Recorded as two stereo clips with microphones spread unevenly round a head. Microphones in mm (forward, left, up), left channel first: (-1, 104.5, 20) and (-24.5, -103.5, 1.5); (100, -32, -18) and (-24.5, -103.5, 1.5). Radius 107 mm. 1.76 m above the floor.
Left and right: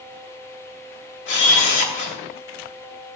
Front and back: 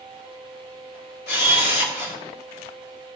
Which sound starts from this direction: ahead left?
A camera shutter, at 1.3 s.